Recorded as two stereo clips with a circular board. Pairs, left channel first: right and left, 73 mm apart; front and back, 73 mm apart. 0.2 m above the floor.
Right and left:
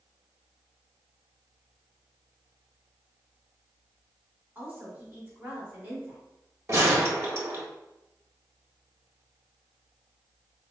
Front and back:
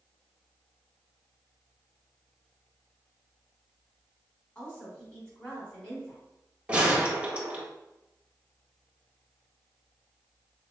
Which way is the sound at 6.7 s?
115° left.